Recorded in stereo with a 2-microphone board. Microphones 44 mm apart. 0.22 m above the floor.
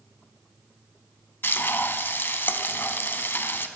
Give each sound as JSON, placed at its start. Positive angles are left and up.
{"t": 1.4, "sound": "frying", "side_deg": 55, "distance_m": 0.5}